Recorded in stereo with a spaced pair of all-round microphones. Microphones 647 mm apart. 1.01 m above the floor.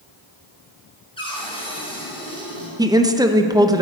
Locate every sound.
1.2 s a cupboard door: 10° left (ahead or behind), 3.5 m
2.8 s a woman speaking: 5° right (ahead or behind), 0.5 m